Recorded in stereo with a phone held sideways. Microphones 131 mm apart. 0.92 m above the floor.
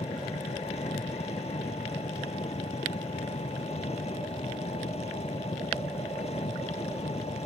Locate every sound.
0.0 s an engine running: 50° left (ahead or behind)